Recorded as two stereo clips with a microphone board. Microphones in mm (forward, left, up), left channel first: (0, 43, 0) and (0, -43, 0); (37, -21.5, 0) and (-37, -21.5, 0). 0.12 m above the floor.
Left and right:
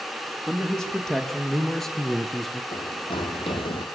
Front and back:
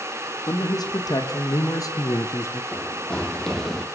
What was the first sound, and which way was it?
A man speaking, 5° left.